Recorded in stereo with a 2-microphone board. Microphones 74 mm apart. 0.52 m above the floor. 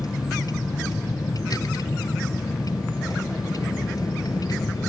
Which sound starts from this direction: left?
A vehicle, at 0.0 s.